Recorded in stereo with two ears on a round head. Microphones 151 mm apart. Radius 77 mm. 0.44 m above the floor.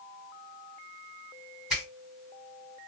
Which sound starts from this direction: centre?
A finger snap, at 1.7 s.